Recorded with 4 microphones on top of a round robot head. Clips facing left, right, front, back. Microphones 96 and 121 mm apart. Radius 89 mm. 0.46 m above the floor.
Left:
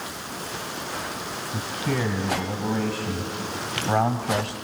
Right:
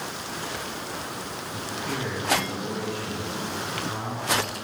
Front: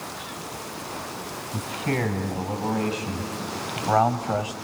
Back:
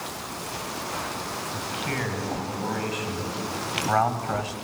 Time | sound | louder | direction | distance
1.5 | a man speaking | left 5 dB, front 6 dB | 40° left | 3.5 m